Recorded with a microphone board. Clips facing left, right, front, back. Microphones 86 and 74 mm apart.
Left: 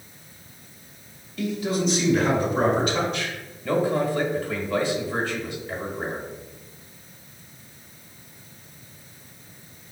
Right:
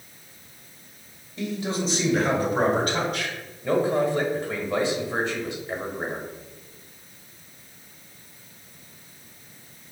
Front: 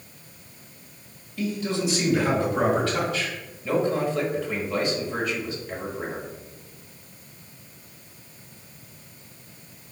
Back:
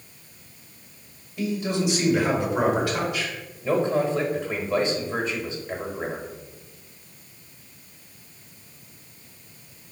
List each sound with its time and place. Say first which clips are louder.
1.4 s a man speaking: left 3 dB, back 1 dB; 130° right, 1.5 m; by 3.4 s 110° right, 2.5 m
3.6 s a man speaking: right 1 dB, back 1 dB; 140° right, 1.1 m